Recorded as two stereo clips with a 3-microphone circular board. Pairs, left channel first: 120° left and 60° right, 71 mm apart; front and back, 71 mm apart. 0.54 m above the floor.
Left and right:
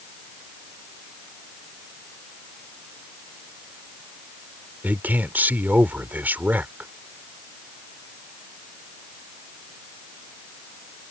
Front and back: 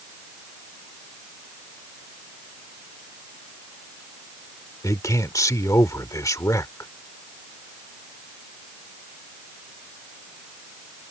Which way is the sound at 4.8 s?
5° right.